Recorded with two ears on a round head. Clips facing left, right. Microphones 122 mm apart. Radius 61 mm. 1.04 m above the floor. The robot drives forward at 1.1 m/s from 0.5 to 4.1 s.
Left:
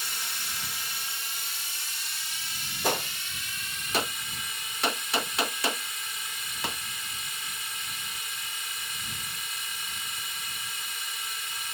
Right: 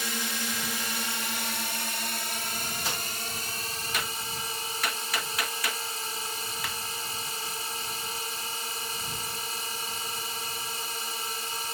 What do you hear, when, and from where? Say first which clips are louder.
0.0 s a drone: right 7 dB; 65° right (ahead or behind); by 11.7 s 30° right (ahead or behind)
2.8 s a gunshot: left 6 dB; 40° left (ahead or behind); by 6.8 s 20° left (ahead or behind)